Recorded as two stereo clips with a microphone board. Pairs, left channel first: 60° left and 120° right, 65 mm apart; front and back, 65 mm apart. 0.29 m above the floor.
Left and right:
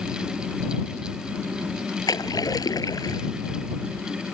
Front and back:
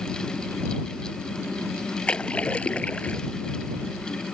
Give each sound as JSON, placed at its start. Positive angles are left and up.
{"t": 2.1, "sound": "a splash", "azimuth_deg": 70}